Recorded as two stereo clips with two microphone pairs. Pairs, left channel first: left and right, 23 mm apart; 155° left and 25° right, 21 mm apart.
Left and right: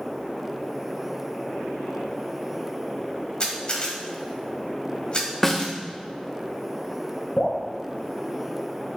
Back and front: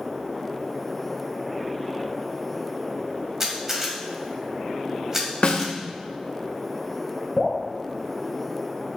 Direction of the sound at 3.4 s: 45° left.